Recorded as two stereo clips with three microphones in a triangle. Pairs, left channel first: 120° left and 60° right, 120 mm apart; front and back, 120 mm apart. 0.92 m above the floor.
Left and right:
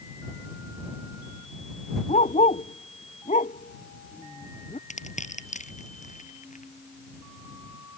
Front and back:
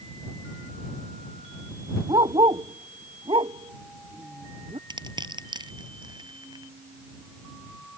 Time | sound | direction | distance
2.1 | a dog barking | 135° left | ?
4.9 | crushing | 130° left | ?